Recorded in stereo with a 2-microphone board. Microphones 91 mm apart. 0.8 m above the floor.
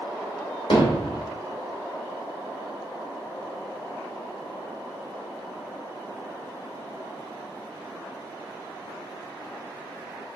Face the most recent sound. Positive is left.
turn(degrees=60)  # may be behind; listen again after turning